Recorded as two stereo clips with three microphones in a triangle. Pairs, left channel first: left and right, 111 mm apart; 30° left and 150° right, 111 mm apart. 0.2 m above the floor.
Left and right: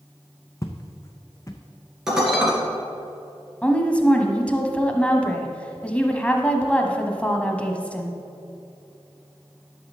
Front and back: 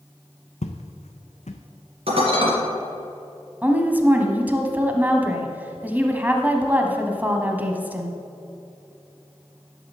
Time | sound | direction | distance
0.6 | footsteps | 30° left | 0.8 m
2.1 | dishes clattering | 175° right | 2 m
3.6 | a woman speaking | 155° left | 1.0 m